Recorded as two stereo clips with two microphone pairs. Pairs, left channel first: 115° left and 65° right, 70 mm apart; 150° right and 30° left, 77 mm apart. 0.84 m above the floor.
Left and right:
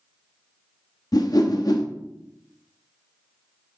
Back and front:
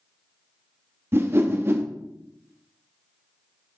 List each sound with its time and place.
1.1 s a whoosh: 90° left, 0.7 m